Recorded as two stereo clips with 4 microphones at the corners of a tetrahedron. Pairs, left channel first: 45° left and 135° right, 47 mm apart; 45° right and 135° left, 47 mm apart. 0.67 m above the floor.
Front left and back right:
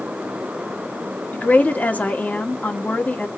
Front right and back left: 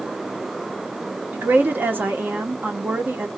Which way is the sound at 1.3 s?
95° left.